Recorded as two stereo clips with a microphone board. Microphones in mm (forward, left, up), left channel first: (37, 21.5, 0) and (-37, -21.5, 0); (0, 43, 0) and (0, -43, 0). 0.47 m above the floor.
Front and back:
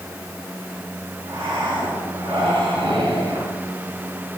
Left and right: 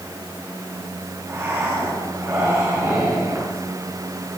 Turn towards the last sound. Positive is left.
turn(degrees=-155)